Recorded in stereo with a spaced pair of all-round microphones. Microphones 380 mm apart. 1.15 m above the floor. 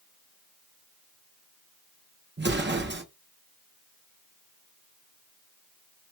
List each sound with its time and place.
2.4 s an explosion: 30° right (ahead or behind), 0.5 m